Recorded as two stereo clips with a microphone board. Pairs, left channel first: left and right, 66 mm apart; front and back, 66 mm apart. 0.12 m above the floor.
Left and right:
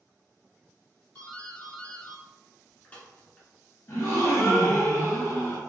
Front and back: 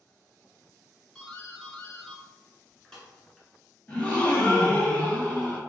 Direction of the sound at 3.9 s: 65° left.